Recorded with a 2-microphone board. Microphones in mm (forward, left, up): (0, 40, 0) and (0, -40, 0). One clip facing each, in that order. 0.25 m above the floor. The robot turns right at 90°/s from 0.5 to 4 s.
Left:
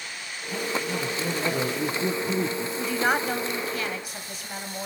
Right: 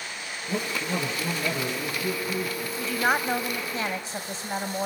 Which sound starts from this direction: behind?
A woman speaking, at 2.8 s.